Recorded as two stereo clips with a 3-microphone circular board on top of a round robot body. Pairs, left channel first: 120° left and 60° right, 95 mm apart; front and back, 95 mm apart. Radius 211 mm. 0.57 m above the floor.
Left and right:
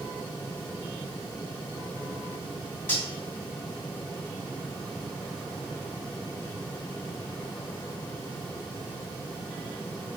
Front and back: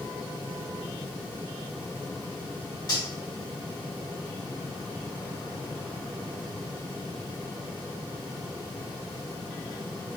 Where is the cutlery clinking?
50° left, 2.5 m.